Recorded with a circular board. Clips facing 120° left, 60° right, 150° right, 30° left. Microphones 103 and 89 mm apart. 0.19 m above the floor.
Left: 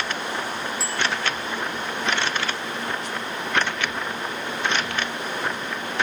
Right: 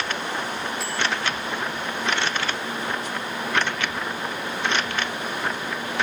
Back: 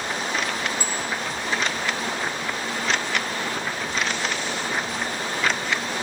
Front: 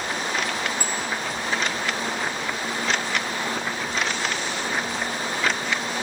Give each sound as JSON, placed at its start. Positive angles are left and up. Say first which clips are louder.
{"t": 0.8, "sound": "a bicycle bell", "louder": "even, even", "azimuth_deg": 65, "distance_m": 8.0}